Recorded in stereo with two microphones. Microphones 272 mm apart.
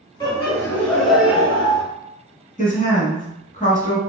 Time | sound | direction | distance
0.2 | laughter | 20° left (ahead or behind) | 1.3 m
2.6 | a woman speaking | 30° left (ahead or behind) | 1.1 m